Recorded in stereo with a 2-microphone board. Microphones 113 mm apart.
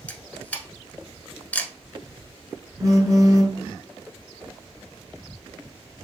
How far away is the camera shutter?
About 0.8 m.